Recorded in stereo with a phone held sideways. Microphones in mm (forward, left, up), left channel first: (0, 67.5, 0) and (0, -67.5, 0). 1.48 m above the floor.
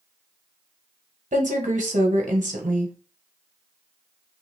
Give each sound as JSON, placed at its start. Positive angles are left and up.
{"t": 1.3, "sound": "a woman speaking", "side_deg": -75, "distance_m": 1.3}